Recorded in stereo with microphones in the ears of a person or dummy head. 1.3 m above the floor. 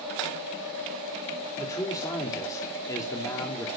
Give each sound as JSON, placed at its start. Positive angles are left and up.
{"t": 1.6, "sound": "a man speaking", "side_deg": 20, "distance_m": 2.5}